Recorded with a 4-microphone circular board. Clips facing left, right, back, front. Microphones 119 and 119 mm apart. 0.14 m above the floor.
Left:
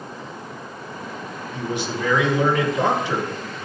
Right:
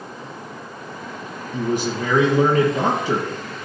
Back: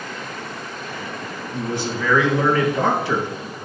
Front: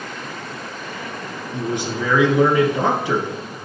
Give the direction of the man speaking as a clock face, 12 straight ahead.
2 o'clock.